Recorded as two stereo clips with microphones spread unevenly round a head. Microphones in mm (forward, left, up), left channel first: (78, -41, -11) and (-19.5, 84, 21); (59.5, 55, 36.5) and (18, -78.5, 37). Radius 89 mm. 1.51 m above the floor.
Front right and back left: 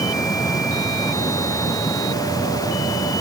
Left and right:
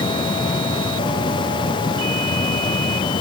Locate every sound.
Only background noise.